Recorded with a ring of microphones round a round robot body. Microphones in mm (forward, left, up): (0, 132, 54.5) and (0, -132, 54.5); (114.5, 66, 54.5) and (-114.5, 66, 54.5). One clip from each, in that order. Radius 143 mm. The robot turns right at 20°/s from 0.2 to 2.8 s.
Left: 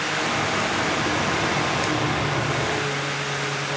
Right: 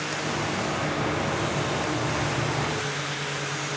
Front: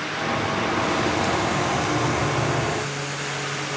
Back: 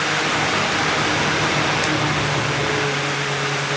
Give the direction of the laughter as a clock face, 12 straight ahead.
I don't hear laughter.